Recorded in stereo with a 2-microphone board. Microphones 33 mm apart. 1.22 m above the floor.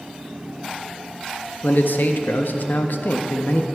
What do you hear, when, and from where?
1.6 s a man speaking: 65° left (ahead or behind), 0.5 m